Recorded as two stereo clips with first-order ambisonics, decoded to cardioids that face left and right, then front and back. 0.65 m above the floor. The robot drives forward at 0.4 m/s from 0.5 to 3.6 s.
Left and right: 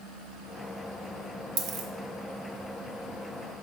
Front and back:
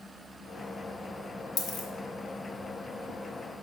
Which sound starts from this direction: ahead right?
A dropped coin, at 1.6 s.